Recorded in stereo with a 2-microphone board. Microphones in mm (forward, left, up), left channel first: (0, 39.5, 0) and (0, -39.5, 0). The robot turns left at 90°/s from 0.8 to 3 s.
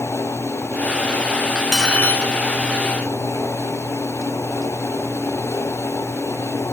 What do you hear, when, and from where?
1.6 s cutlery clinking: 165° right, 1.0 m; by 2.3 s 130° left, 1.0 m